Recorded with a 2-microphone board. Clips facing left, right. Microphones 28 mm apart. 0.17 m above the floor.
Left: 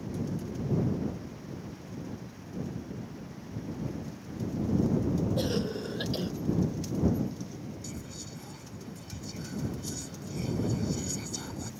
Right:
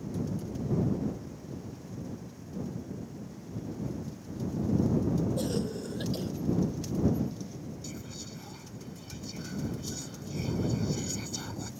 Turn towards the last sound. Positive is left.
turn(degrees=-10)  # may be behind; listen again after turning